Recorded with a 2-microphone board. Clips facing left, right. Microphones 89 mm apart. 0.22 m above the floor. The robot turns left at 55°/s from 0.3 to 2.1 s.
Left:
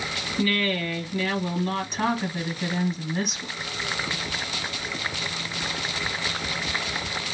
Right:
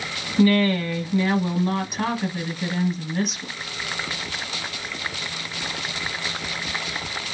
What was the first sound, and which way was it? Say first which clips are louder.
A woman speaking: right 7 dB; 90° right.